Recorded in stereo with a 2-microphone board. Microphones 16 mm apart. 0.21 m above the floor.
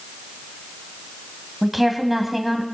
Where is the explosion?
I don't hear an explosion.